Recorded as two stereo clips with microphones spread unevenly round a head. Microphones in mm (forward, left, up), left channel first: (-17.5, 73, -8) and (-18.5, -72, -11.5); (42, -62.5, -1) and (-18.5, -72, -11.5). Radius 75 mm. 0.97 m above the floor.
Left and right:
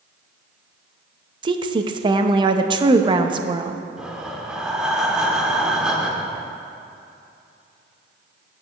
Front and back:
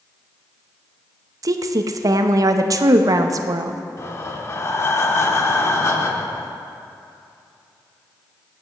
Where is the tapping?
I don't hear tapping.